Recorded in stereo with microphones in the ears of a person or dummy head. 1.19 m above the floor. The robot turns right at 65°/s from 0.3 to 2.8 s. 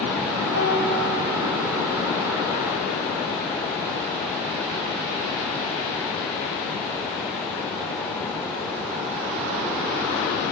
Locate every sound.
0.5 s a piano: 60° right, 2.5 m; by 1.3 s 5° right, 2.5 m